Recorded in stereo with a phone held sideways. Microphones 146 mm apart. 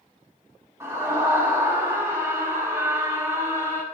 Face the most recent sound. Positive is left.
turn(degrees=-20)  # may be behind; listen again after turning